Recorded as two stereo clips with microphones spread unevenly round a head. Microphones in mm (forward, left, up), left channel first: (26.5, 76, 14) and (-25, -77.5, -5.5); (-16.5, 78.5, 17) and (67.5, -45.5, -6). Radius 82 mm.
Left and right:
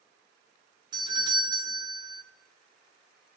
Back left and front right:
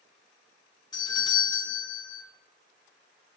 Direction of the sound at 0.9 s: 170° right.